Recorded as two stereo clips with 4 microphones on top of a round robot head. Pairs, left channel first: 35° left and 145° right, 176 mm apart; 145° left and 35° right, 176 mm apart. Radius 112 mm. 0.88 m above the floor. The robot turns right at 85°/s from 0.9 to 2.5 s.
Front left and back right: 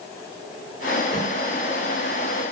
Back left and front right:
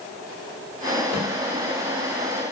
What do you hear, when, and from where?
1.1 s a snare drum: 145° left, 2.5 m; by 1.3 s 160° left, 2.5 m